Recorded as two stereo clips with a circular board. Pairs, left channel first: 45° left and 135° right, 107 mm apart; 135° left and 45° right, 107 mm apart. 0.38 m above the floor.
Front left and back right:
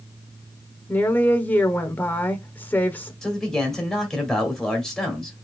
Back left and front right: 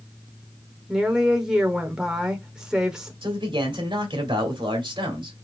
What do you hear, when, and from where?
0.9 s a woman speaking: 25° left, 0.8 m
3.2 s a man speaking: 40° right, 2 m